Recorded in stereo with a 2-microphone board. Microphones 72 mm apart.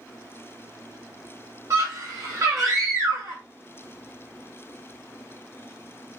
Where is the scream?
45° right (ahead or behind), 1.5 m.